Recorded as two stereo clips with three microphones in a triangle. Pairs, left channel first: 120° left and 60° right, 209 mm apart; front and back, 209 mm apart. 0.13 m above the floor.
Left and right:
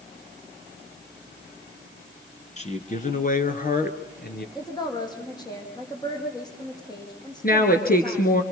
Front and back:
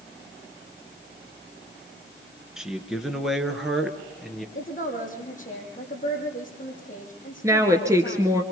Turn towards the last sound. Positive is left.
turn(degrees=110)